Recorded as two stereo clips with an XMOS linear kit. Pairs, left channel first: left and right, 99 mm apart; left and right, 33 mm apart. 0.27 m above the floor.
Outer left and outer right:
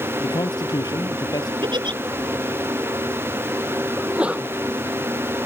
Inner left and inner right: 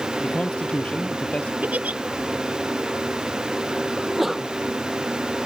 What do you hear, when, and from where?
0.2 s a man speaking: 45° left (ahead or behind)
1.6 s a giggle: 50° right (ahead or behind)
4.0 s a sneeze: 10° right (ahead or behind)